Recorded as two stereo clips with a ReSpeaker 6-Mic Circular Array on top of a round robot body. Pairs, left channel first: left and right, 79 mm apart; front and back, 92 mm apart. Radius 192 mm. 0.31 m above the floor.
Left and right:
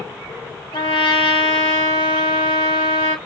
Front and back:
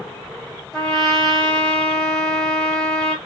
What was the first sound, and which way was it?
A trumpet, 85° left.